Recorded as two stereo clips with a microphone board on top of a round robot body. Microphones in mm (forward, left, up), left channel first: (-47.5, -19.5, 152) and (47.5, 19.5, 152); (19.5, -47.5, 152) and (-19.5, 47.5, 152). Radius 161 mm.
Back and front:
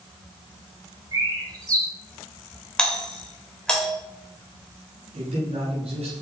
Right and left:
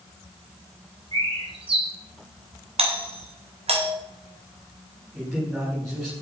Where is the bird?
80° left, 4.5 m.